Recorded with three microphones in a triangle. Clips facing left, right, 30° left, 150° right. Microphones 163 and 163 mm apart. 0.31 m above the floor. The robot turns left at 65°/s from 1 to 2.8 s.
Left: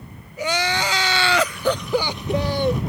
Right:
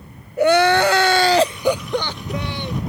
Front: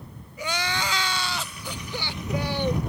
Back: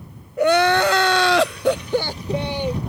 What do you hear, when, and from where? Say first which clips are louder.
0.4 s crying: right 10 dB, back 14 dB; 120° right; by 2.8 s 120° left